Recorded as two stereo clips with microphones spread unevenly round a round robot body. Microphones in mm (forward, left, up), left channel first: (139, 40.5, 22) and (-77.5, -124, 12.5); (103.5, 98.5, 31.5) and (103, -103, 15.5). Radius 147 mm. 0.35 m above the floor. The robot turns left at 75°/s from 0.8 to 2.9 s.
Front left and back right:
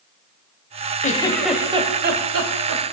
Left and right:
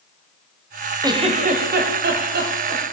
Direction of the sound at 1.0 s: 20° right.